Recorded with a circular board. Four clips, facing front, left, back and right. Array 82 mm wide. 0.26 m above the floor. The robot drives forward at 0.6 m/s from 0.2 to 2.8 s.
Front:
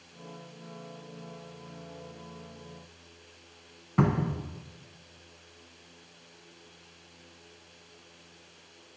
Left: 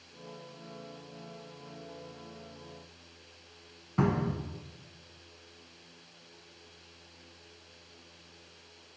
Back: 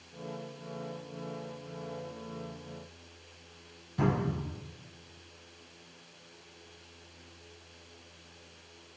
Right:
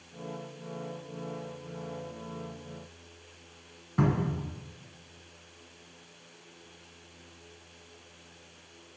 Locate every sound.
4.0 s a cupboard door: 10° left, 0.6 m